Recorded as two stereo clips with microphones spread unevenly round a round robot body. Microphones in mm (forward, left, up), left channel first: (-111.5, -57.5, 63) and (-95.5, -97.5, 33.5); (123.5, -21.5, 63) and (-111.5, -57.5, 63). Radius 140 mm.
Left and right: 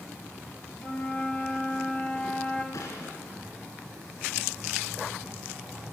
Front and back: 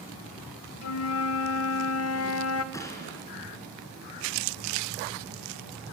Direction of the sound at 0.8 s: 25° left.